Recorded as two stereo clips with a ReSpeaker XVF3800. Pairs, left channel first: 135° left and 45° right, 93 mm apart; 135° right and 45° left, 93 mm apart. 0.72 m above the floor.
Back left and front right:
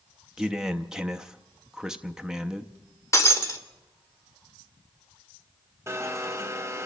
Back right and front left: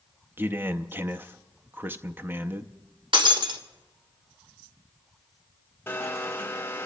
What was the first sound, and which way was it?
A man speaking, 30° left.